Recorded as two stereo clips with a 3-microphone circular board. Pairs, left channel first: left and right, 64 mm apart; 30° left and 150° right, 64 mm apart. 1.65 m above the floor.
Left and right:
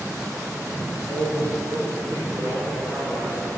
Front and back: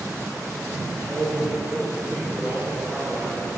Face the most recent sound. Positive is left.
turn(degrees=-90)